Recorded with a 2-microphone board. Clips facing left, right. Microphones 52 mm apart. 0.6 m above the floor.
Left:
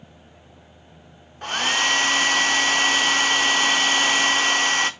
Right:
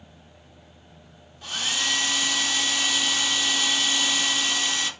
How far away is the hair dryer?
About 0.7 m.